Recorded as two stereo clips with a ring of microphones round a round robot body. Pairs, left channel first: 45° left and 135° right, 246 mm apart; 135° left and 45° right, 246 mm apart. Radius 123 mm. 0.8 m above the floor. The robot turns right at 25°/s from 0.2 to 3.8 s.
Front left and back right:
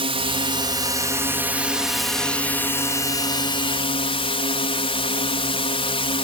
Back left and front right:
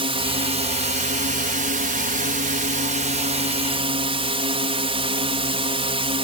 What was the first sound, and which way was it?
A drone, 90° right.